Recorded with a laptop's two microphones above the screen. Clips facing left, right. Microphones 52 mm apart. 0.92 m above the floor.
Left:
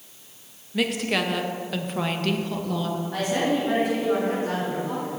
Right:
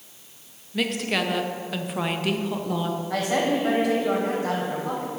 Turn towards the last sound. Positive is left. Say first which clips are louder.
# right 1 dB
turn(degrees=-85)